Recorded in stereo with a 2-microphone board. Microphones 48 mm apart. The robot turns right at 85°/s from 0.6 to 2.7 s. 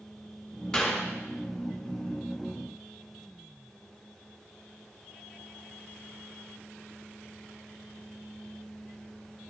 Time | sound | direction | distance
0.7 | a clap | 10° left (ahead or behind) | 3 m